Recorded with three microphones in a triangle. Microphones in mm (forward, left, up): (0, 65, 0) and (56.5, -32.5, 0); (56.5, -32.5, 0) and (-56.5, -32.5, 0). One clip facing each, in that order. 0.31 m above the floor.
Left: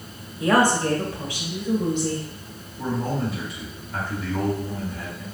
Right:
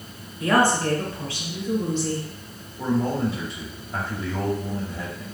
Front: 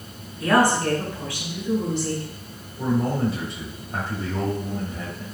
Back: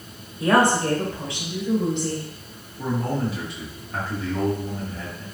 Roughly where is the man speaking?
Ahead right.